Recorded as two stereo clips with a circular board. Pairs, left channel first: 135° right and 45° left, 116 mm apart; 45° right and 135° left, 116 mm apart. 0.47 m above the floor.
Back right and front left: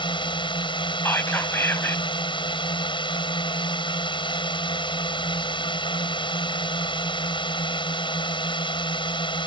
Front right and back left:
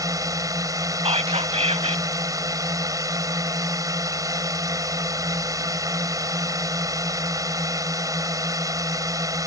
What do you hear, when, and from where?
0.0 s a drone: 170° right
1.1 s whispering: 155° left